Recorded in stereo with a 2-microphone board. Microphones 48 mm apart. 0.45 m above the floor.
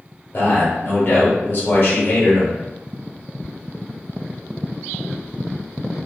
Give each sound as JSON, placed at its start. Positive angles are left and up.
{"t": 0.3, "sound": "a man speaking", "side_deg": 45, "distance_m": 1.1}